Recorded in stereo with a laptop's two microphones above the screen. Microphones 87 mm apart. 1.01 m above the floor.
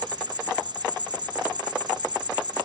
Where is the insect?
60° right (ahead or behind).